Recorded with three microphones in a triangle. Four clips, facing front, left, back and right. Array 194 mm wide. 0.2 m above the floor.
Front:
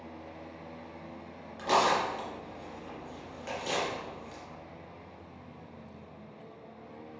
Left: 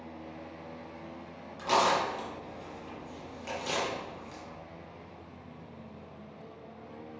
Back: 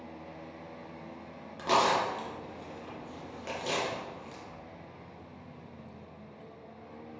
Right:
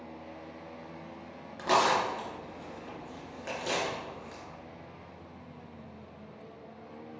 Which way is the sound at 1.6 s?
140° right.